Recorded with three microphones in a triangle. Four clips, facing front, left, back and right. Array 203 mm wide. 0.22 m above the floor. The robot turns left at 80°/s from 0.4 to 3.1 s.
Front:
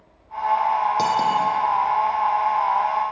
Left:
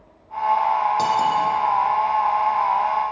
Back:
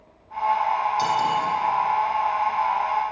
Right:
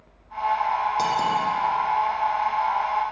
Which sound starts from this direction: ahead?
Cutlery clinking, at 1.0 s.